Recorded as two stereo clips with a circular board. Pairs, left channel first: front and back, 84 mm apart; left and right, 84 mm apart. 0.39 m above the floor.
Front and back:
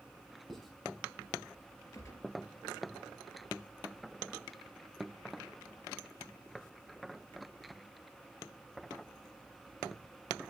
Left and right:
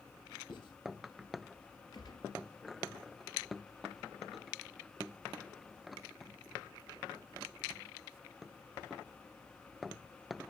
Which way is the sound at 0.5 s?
90° left.